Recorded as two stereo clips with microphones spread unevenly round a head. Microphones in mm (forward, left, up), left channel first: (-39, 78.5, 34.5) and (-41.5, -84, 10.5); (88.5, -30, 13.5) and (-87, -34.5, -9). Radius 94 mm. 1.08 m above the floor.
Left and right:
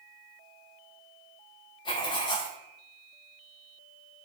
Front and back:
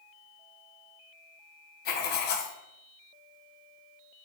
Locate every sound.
1.9 s writing: 25° left, 0.5 m